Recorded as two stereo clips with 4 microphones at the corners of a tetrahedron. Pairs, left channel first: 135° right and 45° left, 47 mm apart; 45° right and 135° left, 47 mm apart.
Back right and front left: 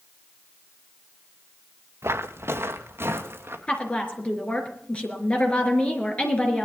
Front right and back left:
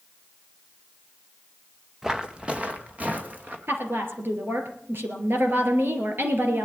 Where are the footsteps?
50° left, 1.2 m; by 3.6 s 80° left, 3 m.